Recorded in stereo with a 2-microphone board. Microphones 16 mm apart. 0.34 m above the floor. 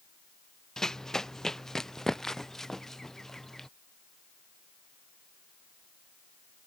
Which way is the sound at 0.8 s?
30° left (ahead or behind).